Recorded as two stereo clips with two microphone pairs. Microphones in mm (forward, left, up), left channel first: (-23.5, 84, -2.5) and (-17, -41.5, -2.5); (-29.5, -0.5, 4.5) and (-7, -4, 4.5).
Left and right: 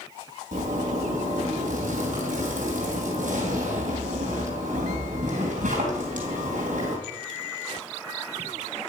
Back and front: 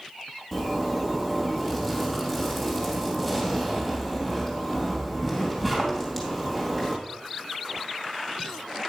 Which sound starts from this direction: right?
A zipper, at 0.5 s.